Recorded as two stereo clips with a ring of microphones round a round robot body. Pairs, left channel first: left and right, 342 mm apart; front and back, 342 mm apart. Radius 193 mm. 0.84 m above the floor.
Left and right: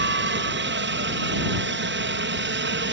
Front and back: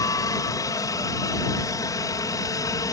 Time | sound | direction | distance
0.0 | a helicopter | 75° right | ?